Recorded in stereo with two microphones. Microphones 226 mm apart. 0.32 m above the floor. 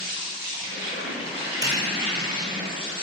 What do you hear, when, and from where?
0.0 s an insect: 25° left (ahead or behind), 2.5 m
1.6 s a snare drum: 15° right (ahead or behind), 1.2 m